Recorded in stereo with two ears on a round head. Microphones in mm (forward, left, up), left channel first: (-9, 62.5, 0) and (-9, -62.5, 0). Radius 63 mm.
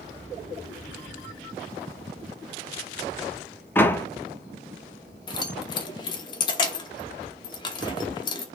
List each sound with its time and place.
3.8 s a door slam: 15° left (ahead or behind), 0.9 m
5.3 s keys jangling: 30° left (ahead or behind), 1.1 m